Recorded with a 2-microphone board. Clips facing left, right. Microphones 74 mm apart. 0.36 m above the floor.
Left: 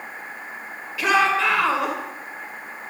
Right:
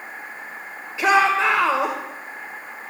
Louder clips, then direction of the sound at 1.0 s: Right 2 dB; 25° right (ahead or behind).